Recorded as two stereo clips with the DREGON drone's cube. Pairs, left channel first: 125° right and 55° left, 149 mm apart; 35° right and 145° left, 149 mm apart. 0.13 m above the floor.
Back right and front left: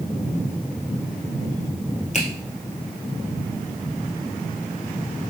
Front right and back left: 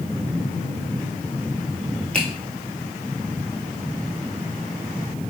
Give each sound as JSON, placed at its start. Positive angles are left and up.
{"t": 2.1, "sound": "a finger snap", "azimuth_deg": -115, "distance_m": 1.3}